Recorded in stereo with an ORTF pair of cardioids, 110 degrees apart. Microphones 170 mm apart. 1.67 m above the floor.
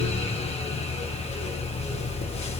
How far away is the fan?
About 1.3 m.